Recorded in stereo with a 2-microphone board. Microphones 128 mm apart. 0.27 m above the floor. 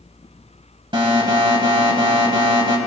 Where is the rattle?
I don't hear a rattle.